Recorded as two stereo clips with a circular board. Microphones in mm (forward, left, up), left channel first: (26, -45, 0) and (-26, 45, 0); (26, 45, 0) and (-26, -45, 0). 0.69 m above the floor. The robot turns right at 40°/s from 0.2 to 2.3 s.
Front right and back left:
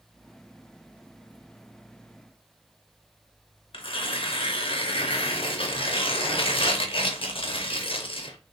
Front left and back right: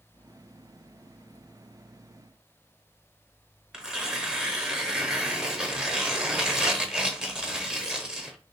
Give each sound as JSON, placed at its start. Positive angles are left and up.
{"t": 3.7, "sound": "tearing paper", "azimuth_deg": -40, "distance_m": 0.6}